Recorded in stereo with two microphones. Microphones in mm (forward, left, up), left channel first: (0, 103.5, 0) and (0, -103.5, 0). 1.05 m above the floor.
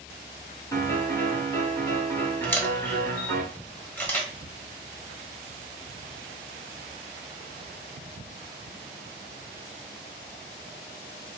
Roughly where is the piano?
Centre.